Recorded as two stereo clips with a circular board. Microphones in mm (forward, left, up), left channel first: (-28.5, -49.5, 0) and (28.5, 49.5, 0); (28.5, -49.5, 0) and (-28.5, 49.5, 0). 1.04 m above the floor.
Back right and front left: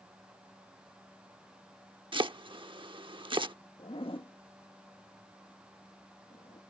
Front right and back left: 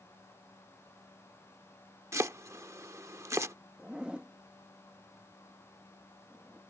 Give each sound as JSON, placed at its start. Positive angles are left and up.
{"t": 2.1, "sound": "chopping", "azimuth_deg": 65}
{"t": 3.8, "sound": "a zipper", "azimuth_deg": -160}